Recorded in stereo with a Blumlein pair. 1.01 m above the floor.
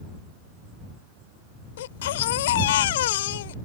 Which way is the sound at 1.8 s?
55° left.